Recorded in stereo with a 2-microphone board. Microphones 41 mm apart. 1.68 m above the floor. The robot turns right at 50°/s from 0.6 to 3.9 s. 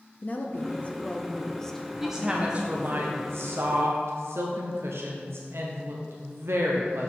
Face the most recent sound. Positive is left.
turn(degrees=-80)